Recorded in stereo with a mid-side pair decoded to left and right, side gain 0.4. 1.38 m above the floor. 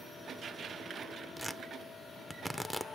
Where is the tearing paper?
10° left, 0.6 m.